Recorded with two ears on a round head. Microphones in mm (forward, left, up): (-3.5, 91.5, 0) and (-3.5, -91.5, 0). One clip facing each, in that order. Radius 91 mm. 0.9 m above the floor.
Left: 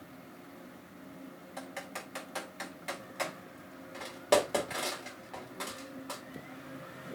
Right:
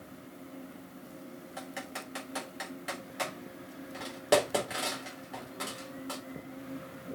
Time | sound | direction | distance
1.6 | typing on a keyboard | 5° right (ahead or behind) | 3.5 m